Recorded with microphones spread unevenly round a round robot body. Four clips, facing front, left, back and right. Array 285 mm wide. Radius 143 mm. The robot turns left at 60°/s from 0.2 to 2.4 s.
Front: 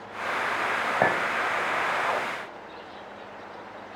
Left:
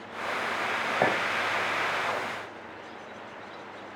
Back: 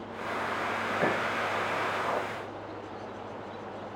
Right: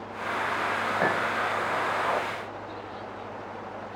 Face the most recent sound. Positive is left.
turn(degrees=-60)